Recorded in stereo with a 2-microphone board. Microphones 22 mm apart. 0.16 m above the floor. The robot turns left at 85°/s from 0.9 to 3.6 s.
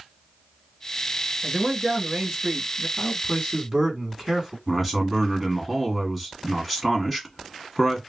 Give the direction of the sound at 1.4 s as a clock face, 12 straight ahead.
1 o'clock.